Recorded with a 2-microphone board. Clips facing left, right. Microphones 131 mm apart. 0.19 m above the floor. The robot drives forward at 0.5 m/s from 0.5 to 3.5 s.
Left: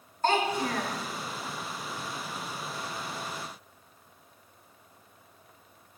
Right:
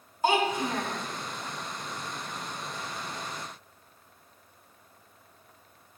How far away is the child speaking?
About 1.0 m.